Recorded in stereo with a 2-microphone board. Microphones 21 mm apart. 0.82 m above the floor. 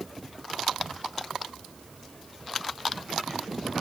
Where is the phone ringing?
No phone ringing in this recording.